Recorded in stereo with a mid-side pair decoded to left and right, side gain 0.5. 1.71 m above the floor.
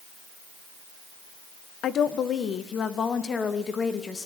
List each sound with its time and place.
1.8 s a woman speaking: 60° left, 1.6 m; by 4.3 s 35° left, 3 m